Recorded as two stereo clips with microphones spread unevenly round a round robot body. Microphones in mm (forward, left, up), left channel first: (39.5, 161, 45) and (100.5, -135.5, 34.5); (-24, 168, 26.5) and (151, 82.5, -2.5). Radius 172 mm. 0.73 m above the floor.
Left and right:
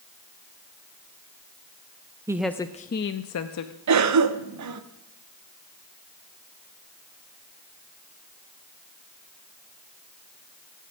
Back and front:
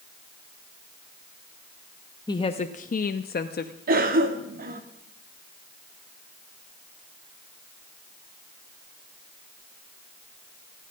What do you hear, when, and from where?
2.3 s a woman speaking: 140° right, 0.5 m; by 3.7 s 115° left, 0.9 m
3.9 s a cough: 65° right, 1.3 m